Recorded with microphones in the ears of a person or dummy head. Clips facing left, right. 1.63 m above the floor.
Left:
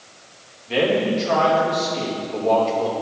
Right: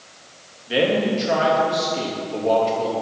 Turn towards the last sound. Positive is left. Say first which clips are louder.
# even
turn(degrees=-10)  # may be behind; listen again after turning